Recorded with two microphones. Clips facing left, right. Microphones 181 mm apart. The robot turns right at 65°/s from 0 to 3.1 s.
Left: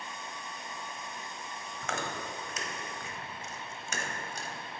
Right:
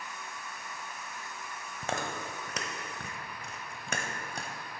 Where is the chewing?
30° right (ahead or behind), 1.0 m; by 4.5 s 60° right (ahead or behind), 1.0 m.